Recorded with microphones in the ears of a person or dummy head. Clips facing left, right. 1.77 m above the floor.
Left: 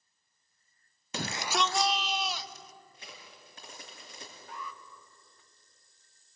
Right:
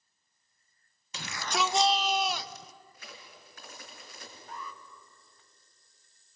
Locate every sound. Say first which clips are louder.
1.1 s a shout: left 1 dB; 45° left (ahead or behind), 0.6 m; by 2.7 s 60° right (ahead or behind), 1.5 m
2.9 s a crack: right 1 dB; 30° left (ahead or behind), 5.5 m
4.5 s an alarm: even; 40° right (ahead or behind), 1.7 m